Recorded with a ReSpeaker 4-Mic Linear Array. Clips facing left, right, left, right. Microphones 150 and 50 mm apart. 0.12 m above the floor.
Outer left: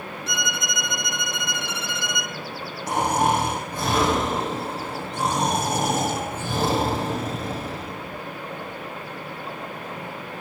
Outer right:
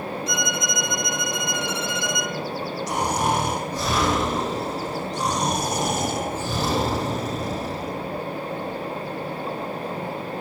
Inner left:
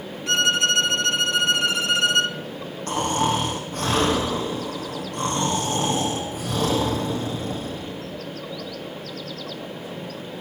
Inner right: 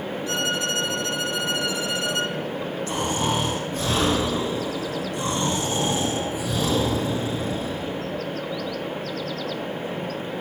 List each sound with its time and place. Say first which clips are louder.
0.3 s a violin: outer right 4 dB, inner left 6 dB; 65° left (ahead or behind), 0.6 m
2.9 s snoring: outer left 3 dB, inner left 4 dB; 55° left (ahead or behind), 7.5 m